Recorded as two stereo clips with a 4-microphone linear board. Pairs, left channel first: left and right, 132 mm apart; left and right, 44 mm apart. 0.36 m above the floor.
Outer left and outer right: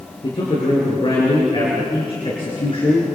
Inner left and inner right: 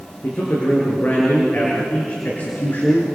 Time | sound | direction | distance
0.2 | a man speaking | 40° left (ahead or behind) | 6 m